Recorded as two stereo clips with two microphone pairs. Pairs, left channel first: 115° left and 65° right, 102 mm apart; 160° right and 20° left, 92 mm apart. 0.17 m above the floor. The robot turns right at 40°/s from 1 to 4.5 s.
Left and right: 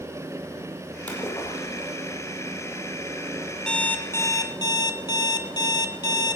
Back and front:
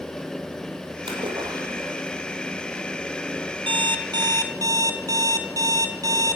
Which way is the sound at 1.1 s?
40° left.